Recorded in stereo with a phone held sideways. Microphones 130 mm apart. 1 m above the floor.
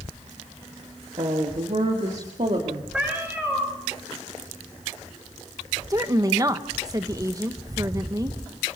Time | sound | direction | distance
1.2 | a woman speaking | 50° right (ahead or behind) | 1.8 m
2.9 | a cat meowing | 5° right (ahead or behind) | 6 m
5.9 | a woman speaking | 25° right (ahead or behind) | 1.2 m